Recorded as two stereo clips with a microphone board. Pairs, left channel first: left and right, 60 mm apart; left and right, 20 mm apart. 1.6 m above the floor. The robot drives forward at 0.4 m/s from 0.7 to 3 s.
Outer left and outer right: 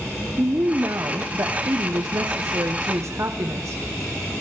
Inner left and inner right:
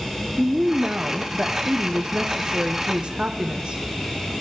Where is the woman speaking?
50° right (ahead or behind), 0.9 m; by 3.8 s 55° right (ahead or behind), 0.8 m.